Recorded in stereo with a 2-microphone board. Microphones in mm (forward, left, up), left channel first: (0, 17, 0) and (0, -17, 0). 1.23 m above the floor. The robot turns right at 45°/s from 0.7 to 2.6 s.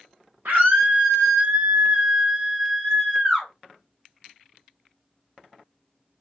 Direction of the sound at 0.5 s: 85° right.